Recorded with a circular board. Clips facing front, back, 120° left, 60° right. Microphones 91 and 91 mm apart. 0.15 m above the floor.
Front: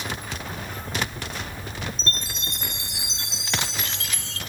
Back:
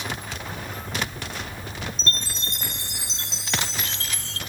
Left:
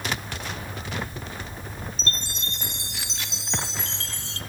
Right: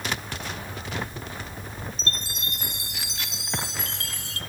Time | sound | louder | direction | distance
2.0 | a chime | back 1 dB, left 1 dB | 150° left | 1.5 m